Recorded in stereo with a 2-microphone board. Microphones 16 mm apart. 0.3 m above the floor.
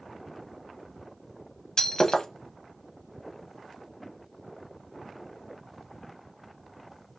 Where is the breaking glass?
50° left (ahead or behind), 0.7 m.